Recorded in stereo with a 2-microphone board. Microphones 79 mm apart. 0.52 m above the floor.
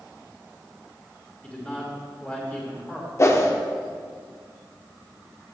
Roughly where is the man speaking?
Centre.